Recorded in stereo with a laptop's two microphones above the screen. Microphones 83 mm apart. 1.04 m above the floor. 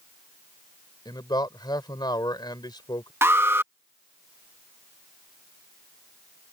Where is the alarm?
30° right (ahead or behind).